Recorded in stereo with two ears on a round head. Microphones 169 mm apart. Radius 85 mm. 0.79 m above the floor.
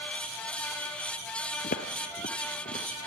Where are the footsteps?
45° left (ahead or behind), 1.0 m; by 3.1 s 35° left (ahead or behind), 2.5 m.